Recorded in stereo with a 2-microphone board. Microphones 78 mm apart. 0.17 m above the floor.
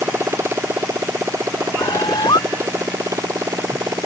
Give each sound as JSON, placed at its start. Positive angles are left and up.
{"t": 0.0, "sound": "a motorcycle", "side_deg": -30}
{"t": 1.8, "sound": "a bird", "side_deg": 70}